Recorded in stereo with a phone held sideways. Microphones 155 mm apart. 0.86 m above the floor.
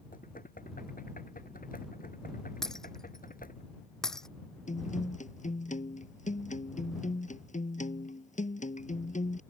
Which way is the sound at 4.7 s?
55° left (ahead or behind).